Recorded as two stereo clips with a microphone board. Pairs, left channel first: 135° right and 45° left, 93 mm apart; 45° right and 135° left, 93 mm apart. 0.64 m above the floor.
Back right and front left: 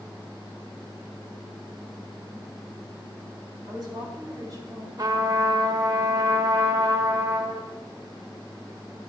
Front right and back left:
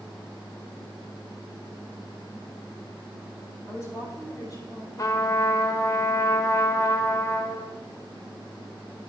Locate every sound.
3.7 s a woman speaking: 10° left, 3 m; by 4.9 s 5° right, 3 m
5.0 s a trumpet: 5° left, 0.9 m